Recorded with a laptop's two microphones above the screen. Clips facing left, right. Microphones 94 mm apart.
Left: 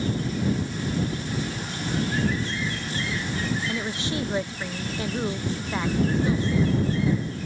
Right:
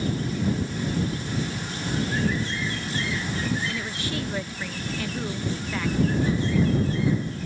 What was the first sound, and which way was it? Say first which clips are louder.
A woman speaking: left 2 dB; 25° left (ahead or behind).